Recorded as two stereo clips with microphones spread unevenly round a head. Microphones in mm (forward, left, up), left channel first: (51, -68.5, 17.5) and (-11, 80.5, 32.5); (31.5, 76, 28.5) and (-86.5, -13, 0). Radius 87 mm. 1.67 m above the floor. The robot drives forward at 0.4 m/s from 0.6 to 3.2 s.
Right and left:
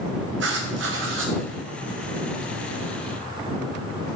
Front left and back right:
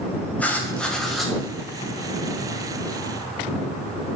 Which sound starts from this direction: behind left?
Writing, at 0.4 s.